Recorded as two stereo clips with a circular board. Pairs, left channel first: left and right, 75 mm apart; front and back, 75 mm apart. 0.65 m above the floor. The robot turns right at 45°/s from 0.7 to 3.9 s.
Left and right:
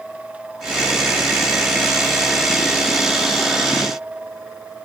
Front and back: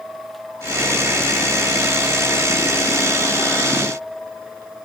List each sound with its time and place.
Only background noise.